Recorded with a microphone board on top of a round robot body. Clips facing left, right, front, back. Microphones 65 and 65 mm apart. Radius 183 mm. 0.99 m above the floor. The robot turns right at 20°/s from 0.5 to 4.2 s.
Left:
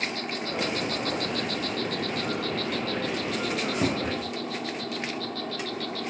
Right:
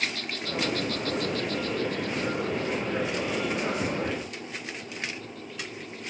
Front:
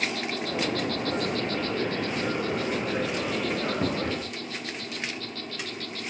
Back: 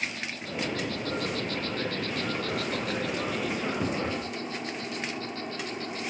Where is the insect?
35° left; by 6.1 s 110° left.